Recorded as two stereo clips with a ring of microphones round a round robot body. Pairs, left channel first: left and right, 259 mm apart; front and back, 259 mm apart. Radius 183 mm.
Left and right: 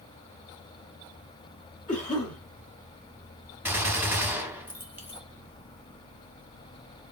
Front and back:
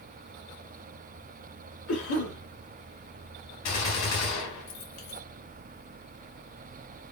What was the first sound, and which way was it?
A cough, 30° left.